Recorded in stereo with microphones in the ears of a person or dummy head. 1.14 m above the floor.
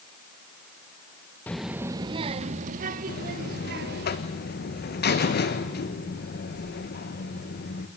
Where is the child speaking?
10° left (ahead or behind), 0.8 m; by 4.1 s 55° right (ahead or behind), 2.5 m.